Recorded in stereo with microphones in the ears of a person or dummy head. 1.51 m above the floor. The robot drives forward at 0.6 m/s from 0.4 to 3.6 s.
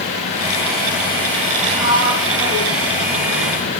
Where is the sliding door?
35° right (ahead or behind), 4 m; by 3.8 s 45° right (ahead or behind), 3 m.